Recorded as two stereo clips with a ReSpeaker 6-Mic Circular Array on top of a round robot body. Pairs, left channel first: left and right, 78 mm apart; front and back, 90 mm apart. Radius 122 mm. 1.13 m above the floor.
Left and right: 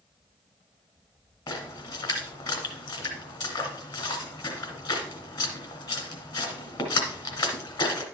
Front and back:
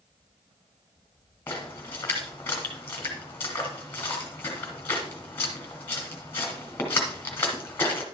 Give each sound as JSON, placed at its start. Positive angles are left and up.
{"t": 1.5, "sound": "a splash", "azimuth_deg": 65, "distance_m": 1.7}